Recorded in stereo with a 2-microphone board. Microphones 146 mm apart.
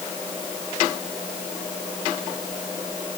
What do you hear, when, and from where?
Only background noise.